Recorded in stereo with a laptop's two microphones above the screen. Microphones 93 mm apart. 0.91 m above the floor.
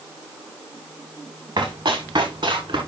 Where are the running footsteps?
45° right (ahead or behind), 7.5 m; by 2.8 s 50° right (ahead or behind), 7 m.